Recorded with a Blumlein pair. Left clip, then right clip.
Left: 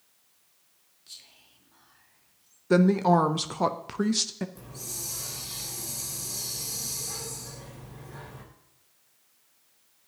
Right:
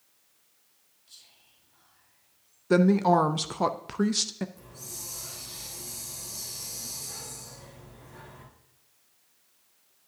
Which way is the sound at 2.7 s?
Straight ahead.